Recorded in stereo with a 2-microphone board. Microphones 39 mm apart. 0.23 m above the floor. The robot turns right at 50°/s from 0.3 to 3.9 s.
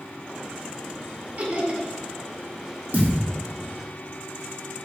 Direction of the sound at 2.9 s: 50° right (ahead or behind).